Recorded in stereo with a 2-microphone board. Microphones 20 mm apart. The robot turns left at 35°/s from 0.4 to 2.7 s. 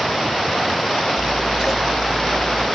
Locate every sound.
1.2 s scissors: 145° right, 1.6 m; by 2.7 s 165° left, 1.6 m